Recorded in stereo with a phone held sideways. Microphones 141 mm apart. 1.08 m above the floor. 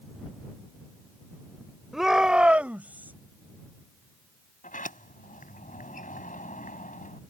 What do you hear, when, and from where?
1.9 s a shout: centre (ahead or behind); by 3.1 s 15° right (ahead or behind)
4.6 s a sliding door: 70° left (ahead or behind)